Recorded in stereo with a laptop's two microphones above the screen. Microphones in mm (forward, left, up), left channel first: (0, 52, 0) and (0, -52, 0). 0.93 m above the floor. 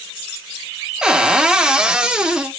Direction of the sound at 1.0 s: 5° right (ahead or behind).